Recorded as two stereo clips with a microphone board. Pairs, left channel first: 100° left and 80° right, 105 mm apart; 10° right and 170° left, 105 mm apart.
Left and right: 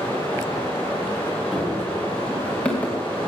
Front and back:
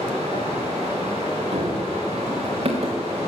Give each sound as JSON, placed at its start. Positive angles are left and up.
{"t": 0.0, "sound": "running water", "azimuth_deg": 170, "distance_m": 8.0}
{"t": 1.5, "sound": "running footsteps", "azimuth_deg": -170, "distance_m": 3.0}